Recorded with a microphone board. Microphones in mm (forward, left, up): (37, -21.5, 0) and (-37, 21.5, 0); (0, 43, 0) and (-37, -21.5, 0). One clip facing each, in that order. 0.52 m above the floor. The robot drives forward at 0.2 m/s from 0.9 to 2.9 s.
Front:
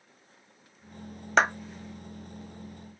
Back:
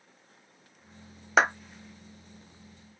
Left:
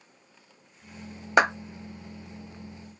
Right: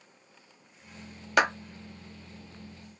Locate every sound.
1.4 s a clap: 70° left, 0.6 m; by 1.5 s 80° left, 0.6 m